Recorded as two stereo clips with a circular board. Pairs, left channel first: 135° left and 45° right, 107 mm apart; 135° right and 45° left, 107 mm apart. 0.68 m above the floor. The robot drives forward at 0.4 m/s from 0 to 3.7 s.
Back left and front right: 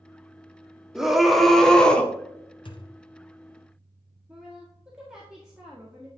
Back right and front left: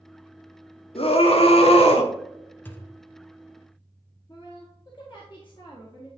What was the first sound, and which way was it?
A scream, 130° right.